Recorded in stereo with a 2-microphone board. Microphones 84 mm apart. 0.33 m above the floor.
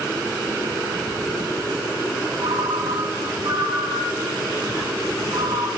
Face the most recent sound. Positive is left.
turn(degrees=-65)  # may be behind; listen again after turning